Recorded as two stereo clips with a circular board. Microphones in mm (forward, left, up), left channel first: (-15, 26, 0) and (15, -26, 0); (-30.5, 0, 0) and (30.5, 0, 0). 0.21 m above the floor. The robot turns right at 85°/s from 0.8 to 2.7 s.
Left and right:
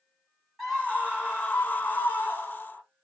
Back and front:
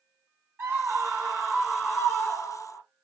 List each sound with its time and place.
0.6 s a scream: 30° left, 2.0 m; by 2.8 s 170° right, 2.0 m